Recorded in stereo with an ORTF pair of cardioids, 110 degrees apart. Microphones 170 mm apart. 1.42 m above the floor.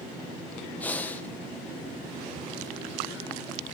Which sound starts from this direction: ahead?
Breathing, at 0.8 s.